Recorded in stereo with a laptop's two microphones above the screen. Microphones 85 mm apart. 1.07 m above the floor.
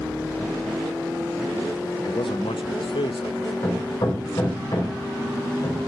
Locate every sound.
2.0 s a man speaking: 80° left, 0.7 m
3.6 s hammering: 65° left (ahead or behind), 4 m